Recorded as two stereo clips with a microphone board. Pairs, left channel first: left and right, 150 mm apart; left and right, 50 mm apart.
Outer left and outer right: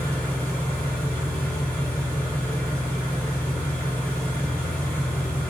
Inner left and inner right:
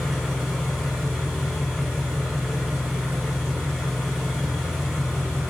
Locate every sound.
0.0 s an engine running: 10° left (ahead or behind), 1.4 m